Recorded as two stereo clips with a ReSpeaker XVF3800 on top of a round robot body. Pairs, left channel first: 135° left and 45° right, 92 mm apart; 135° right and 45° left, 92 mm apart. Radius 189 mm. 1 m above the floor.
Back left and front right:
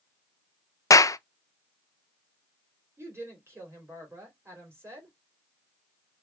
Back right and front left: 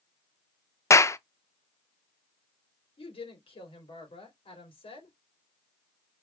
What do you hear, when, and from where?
0.9 s a clap: 175° left, 0.6 m
3.0 s a woman speaking: 110° right, 3 m